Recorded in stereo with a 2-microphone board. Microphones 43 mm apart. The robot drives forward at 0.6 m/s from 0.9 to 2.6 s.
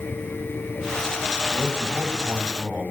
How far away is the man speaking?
About 1.9 m.